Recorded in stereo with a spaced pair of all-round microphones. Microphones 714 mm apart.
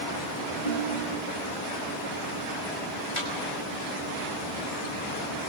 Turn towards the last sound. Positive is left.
turn(degrees=70)  # may be behind; listen again after turning